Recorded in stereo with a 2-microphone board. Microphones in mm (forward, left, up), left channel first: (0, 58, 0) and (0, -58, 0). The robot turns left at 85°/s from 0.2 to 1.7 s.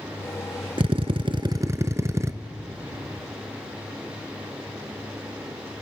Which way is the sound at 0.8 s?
70° right.